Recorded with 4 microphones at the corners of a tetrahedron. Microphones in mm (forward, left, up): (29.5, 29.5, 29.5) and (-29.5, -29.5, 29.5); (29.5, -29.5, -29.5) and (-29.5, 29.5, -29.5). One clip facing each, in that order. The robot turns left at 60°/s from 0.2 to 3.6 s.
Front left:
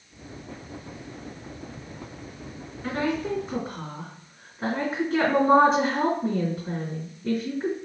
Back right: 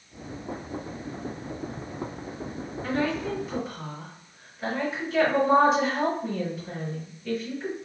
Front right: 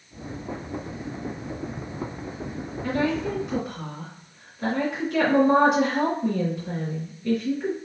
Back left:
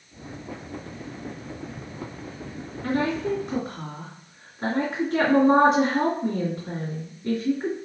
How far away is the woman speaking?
About 2.5 m.